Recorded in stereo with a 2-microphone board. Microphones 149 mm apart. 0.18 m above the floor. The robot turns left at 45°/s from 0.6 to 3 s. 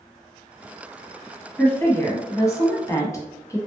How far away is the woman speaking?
About 1.0 m.